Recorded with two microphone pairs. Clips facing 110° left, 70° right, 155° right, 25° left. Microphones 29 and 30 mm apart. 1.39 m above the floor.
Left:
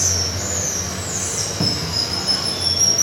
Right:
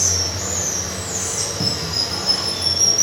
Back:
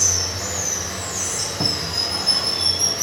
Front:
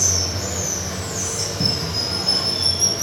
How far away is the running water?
About 3 m.